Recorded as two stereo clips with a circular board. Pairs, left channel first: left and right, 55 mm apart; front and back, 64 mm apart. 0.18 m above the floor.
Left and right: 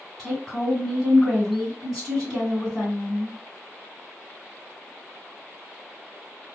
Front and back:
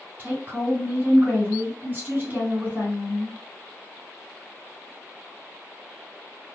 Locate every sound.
0.2 s a woman speaking: 170° right, 1.8 m